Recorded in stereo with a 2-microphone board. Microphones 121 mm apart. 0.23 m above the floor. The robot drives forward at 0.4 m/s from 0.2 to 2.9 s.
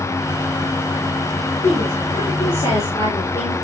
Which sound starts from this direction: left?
A woman speaking, at 1.6 s.